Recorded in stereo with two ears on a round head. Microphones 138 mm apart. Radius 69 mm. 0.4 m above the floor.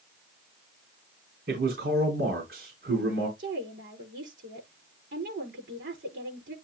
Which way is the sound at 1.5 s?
70° right (ahead or behind).